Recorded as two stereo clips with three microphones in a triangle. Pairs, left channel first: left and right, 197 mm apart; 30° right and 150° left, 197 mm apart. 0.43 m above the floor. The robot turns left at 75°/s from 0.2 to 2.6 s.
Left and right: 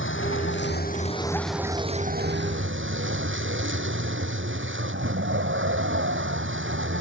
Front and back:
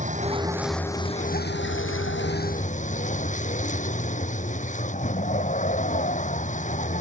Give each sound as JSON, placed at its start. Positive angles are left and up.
{"t": 0.0, "sound": "a vehicle", "azimuth_deg": 100}